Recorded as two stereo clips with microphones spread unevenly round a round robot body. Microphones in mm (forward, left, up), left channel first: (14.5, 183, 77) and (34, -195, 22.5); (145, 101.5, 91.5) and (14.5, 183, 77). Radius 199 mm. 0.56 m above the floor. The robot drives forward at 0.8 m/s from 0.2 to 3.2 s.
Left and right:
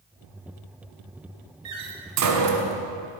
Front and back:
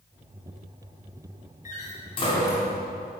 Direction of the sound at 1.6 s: 60° right.